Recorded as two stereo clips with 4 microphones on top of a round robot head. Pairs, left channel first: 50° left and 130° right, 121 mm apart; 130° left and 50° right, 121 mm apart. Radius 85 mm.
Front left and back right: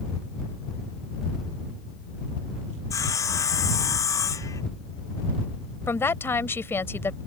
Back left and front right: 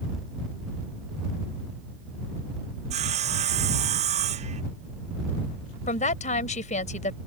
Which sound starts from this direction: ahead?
Sawing, at 2.9 s.